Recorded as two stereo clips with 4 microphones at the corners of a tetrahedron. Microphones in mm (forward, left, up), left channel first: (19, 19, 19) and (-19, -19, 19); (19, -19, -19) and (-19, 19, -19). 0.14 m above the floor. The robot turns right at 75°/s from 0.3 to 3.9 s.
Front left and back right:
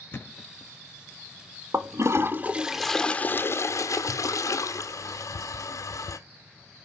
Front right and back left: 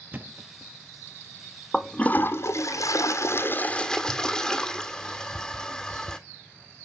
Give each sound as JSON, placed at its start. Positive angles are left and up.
{"t": 0.1, "sound": "a thud", "azimuth_deg": 85, "distance_m": 0.7}
{"t": 1.7, "sound": "a toilet flushing", "azimuth_deg": -130, "distance_m": 0.8}